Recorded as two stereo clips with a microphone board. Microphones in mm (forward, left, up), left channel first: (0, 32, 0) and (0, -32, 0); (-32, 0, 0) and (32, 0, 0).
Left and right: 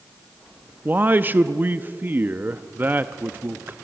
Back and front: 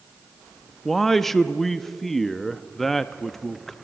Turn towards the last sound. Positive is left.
turn(degrees=-100)